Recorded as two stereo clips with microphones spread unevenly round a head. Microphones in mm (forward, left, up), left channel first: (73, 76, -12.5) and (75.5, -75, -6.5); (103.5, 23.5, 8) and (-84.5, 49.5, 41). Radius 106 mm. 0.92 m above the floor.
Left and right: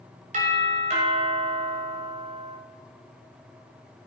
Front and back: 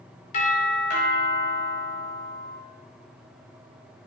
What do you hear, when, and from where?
0.3 s a doorbell: 55° right, 5 m